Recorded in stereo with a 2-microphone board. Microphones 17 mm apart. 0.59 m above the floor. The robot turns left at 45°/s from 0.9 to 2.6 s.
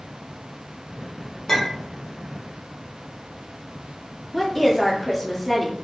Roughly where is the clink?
Left.